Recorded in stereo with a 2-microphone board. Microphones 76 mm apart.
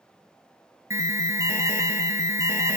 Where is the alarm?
45° right (ahead or behind), 1.7 m.